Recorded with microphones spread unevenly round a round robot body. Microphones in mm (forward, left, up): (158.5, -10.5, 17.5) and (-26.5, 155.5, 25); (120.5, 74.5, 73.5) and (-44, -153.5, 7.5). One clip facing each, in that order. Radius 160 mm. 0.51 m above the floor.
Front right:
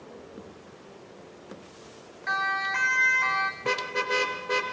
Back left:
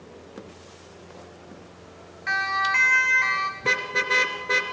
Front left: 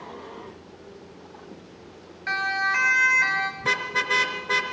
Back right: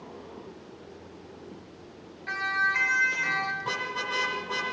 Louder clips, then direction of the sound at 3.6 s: Even, front left 8 dB; 75° left.